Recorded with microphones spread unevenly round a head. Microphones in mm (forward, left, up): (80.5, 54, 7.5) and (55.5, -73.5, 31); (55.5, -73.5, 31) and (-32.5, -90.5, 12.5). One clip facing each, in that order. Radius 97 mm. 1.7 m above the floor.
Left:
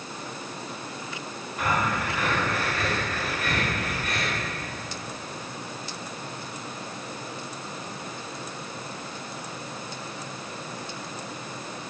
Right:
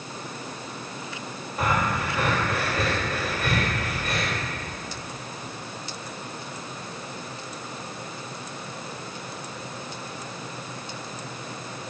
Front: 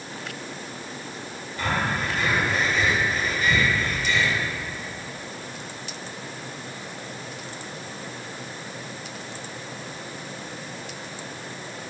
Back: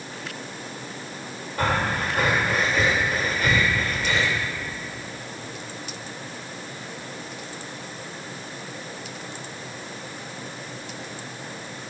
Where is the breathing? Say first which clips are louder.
Right 1 dB, back 2 dB; 145° right, 2.0 m.